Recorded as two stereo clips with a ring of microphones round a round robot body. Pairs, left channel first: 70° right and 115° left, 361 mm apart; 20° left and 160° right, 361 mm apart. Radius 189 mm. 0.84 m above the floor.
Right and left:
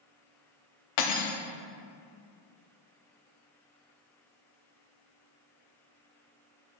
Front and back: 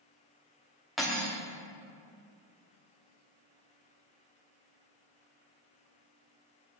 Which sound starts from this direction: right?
Cutlery clinking, at 1.0 s.